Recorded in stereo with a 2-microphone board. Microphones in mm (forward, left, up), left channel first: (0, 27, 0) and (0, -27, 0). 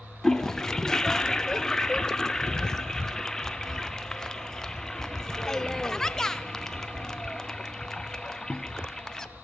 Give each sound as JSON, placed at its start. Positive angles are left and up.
{"t": 0.2, "sound": "a toilet flushing", "side_deg": 10, "distance_m": 0.5}